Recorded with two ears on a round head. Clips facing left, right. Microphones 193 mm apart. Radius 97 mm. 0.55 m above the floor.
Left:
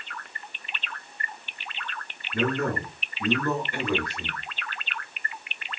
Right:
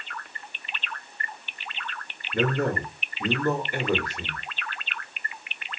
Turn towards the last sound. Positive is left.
turn(degrees=-15)  # may be behind; listen again after turning